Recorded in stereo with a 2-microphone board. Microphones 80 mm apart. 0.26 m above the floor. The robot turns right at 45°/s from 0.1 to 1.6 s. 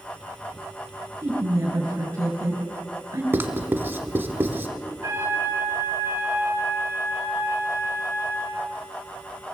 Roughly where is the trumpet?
Right.